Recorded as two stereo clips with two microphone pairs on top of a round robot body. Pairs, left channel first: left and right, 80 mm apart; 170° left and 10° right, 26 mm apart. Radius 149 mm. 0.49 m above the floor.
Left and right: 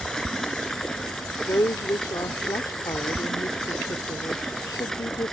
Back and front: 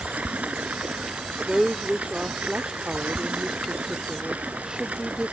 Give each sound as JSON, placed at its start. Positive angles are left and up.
{"t": 0.0, "sound": "running water", "azimuth_deg": 5}
{"t": 1.5, "sound": "a woman speaking", "azimuth_deg": 45}